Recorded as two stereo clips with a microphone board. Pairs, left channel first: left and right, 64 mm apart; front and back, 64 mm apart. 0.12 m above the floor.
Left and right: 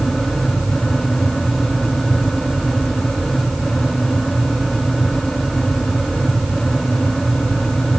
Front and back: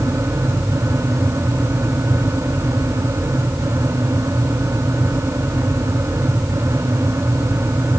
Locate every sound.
Only background noise.